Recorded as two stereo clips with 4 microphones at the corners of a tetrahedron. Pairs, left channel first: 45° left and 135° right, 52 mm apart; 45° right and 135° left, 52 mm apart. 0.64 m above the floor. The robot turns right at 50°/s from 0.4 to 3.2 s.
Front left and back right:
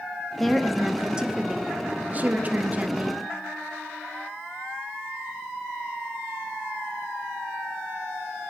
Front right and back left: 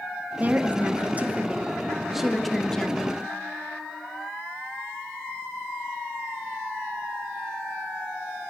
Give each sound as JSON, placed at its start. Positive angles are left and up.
{"t": 0.4, "sound": "a woman speaking", "azimuth_deg": 130, "distance_m": 0.8}